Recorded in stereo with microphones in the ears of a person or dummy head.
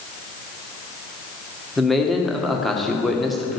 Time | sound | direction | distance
1.8 | a man speaking | centre (ahead or behind) | 1.5 m